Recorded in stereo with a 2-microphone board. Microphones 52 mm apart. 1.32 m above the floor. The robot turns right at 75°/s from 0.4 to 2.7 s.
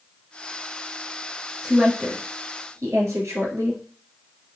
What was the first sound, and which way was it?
A woman speaking, 10° right (ahead or behind).